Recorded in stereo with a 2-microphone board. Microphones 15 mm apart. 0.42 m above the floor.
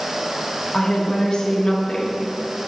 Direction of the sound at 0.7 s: 60° left (ahead or behind).